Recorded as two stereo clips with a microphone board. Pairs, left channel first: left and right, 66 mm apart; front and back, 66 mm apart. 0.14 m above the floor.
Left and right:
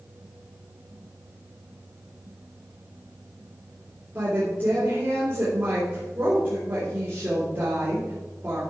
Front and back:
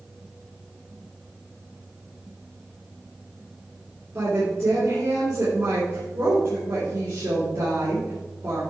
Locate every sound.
4.2 s a woman speaking: 140° right, 3.5 m